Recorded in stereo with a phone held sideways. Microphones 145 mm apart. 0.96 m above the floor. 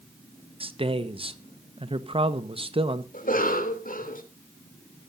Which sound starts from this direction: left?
A cough, at 3.1 s.